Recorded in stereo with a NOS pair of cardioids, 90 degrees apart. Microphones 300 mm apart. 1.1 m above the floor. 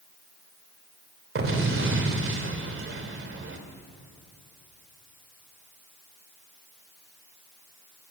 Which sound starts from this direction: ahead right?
An explosion, at 1.4 s.